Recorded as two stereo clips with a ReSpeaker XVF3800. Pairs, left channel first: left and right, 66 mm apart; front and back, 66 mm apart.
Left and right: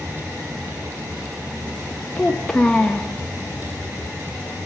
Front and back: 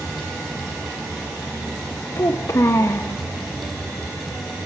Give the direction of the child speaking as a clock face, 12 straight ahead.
12 o'clock.